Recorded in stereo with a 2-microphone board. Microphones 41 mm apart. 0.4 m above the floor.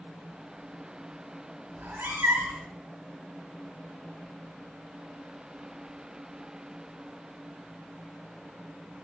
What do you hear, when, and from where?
1.8 s a cat meowing: 60° right (ahead or behind), 1.5 m